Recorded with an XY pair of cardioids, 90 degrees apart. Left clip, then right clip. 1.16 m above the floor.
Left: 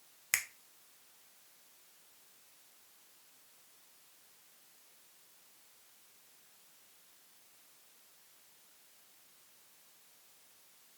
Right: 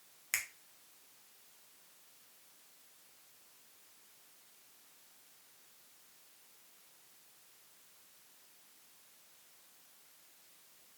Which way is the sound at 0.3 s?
40° left.